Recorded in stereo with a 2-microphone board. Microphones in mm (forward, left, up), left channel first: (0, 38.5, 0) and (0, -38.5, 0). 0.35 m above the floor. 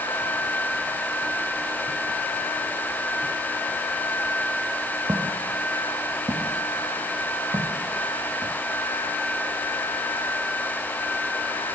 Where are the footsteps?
60° right (ahead or behind), 1.6 m; by 8.5 s 85° right, 3 m.